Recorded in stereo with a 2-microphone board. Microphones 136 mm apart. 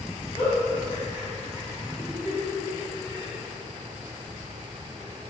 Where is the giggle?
30° left (ahead or behind), 1.5 m.